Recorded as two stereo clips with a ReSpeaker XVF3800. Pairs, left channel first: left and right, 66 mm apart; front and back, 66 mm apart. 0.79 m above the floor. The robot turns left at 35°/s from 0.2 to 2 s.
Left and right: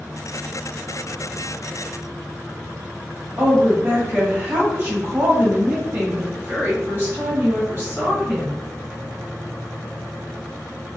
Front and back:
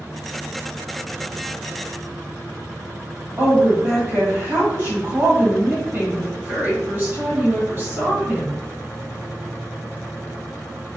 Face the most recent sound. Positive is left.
turn(degrees=-135)